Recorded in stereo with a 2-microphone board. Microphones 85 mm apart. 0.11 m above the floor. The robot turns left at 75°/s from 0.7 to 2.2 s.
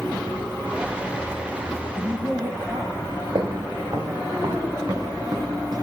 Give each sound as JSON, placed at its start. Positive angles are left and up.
{"t": 1.9, "sound": "a woman speaking", "side_deg": -65, "distance_m": 8.5}
{"t": 3.4, "sound": "footsteps", "side_deg": -55, "distance_m": 3.0}